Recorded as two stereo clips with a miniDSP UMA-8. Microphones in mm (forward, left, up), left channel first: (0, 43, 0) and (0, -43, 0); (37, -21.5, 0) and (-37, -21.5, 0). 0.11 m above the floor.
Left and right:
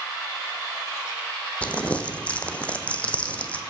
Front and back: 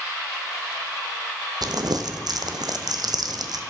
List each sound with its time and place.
1.6 s crumpling: 165° left, 0.8 m